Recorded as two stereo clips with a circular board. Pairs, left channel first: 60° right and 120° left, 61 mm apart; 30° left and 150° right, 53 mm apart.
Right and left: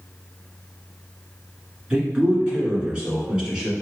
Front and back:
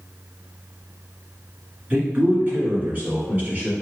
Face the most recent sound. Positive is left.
turn(degrees=-175)